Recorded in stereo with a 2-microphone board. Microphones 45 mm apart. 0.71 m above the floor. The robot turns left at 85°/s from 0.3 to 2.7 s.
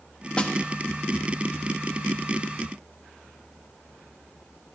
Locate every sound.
0.4 s a snare drum: 20° left (ahead or behind), 0.7 m; by 0.5 s 15° left (ahead or behind), 0.7 m